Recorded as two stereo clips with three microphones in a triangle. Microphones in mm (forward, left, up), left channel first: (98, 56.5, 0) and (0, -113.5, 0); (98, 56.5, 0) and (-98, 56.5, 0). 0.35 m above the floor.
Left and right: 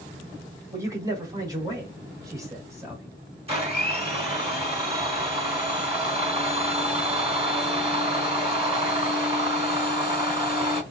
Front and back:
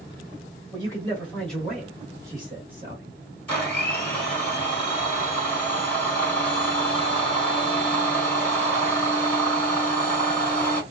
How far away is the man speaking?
About 1.4 m.